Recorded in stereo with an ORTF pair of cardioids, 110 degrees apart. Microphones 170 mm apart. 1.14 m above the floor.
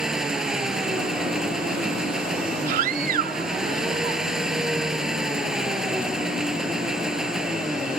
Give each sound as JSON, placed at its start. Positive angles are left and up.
{"t": 0.0, "sound": "an engine running", "azimuth_deg": -5}
{"t": 2.7, "sound": "a scream", "azimuth_deg": -60}